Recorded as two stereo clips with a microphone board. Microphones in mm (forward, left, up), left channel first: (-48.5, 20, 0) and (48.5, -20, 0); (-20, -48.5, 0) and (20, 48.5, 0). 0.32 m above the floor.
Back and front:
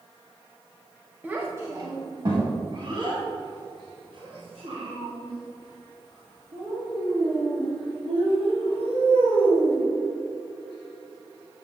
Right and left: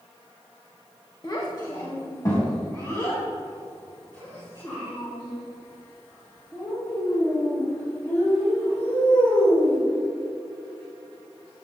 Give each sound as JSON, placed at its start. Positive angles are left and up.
{"t": 1.2, "sound": "a child speaking", "azimuth_deg": -90, "distance_m": 1.0}